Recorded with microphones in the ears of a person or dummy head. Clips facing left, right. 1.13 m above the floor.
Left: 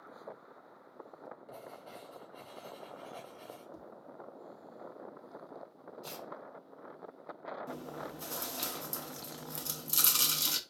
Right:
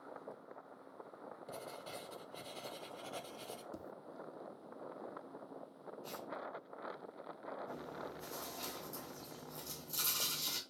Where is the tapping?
30° right (ahead or behind), 0.5 m.